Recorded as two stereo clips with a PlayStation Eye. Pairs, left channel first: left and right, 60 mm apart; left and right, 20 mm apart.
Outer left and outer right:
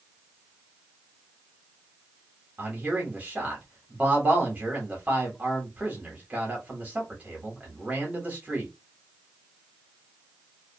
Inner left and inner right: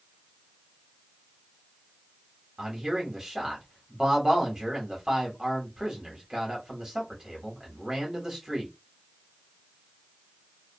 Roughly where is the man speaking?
Right.